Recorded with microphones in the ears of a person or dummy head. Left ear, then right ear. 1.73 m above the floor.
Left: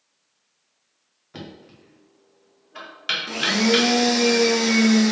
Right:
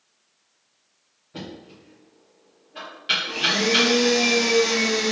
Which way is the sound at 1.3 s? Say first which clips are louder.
Right 2 dB; 45° left (ahead or behind).